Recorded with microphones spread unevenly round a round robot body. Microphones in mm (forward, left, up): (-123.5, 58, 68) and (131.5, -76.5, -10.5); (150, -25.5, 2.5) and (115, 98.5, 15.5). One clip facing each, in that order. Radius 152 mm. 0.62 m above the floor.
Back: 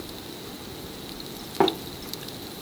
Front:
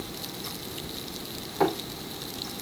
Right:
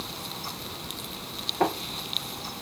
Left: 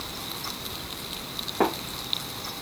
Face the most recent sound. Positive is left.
turn(degrees=170)